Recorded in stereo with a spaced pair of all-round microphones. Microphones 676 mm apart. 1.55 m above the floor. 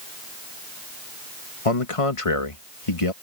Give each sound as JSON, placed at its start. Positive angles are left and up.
{"t": 1.6, "sound": "a man speaking", "side_deg": 50}